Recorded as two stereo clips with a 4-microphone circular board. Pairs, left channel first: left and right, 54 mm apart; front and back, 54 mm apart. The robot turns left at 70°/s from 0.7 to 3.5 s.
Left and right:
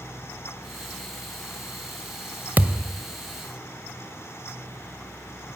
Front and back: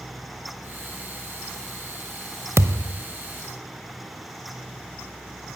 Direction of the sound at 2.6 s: 145° right.